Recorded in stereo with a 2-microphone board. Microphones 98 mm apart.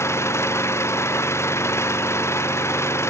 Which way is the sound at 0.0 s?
25° left (ahead or behind).